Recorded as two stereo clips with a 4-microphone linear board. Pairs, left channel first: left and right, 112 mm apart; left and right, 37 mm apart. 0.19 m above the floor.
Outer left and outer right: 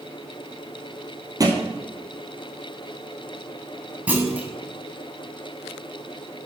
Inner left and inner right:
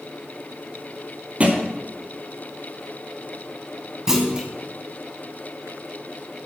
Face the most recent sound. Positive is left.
turn(degrees=-15)  # may be behind; listen again after turning